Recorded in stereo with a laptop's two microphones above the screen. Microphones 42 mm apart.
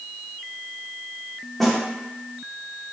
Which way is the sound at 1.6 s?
5° left (ahead or behind).